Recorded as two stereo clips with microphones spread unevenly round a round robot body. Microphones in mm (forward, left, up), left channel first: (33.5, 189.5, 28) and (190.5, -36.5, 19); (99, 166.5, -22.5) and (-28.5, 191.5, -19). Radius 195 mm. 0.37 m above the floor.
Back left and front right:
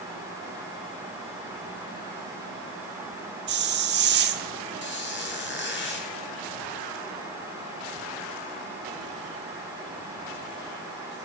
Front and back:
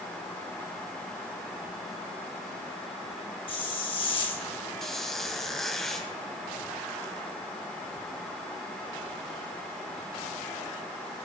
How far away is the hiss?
About 0.6 m.